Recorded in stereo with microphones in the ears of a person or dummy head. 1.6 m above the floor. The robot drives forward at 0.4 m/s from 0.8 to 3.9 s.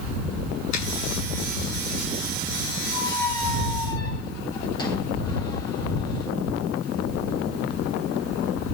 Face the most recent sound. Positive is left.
turn(degrees=15)  # may be behind; listen again after turning